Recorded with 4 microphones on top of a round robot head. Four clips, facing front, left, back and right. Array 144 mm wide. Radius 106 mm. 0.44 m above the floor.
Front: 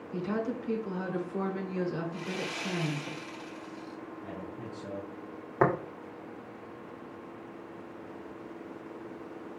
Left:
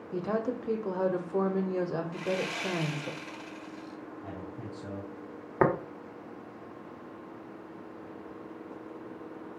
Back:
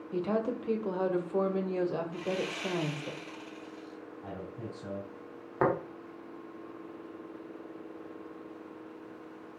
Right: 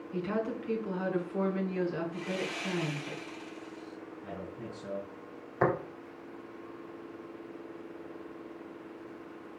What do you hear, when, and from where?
0.1 s a woman speaking: 130° left, 1.6 m
2.1 s sawing: 90° left, 1.9 m
4.2 s a man speaking: 140° left, 4.5 m
5.6 s tapping: 70° left, 1.9 m